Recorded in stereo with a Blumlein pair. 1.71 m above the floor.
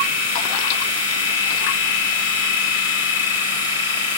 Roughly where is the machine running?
Ahead left.